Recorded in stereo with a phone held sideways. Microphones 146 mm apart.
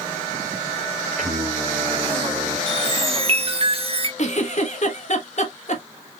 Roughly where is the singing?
Right.